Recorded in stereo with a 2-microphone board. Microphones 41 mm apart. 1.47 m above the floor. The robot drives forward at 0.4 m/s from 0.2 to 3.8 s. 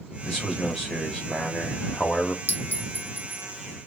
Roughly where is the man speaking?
Centre.